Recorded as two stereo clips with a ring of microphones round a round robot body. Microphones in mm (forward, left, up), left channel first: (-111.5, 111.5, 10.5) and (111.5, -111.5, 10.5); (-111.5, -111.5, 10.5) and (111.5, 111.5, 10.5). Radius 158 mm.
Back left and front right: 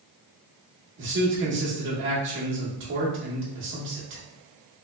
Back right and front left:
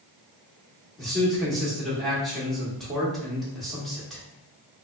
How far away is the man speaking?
About 1.2 m.